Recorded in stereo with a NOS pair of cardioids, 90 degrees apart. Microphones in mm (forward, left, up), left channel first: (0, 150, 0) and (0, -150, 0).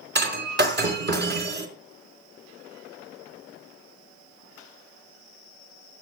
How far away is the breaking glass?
About 4 m.